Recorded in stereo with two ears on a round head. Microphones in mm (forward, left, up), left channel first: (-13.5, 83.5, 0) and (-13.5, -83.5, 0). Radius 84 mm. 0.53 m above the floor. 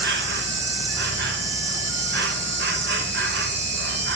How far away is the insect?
About 0.9 m.